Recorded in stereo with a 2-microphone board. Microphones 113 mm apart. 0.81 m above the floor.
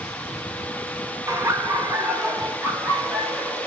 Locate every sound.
1.3 s laughter: 25° right (ahead or behind), 0.7 m; by 3.7 s 20° right (ahead or behind), 1.8 m